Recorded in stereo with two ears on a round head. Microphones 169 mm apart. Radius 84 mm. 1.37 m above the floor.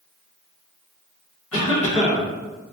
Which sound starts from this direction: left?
A cough, at 1.5 s.